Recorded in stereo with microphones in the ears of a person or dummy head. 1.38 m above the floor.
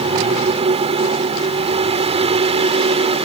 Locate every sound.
0.0 s a fan: 30° right (ahead or behind)